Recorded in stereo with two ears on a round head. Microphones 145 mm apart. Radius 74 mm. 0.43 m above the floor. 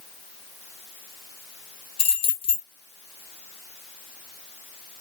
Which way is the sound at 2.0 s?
35° left (ahead or behind).